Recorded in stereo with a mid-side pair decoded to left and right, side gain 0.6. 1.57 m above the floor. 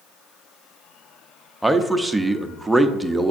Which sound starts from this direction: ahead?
A man speaking, at 1.6 s.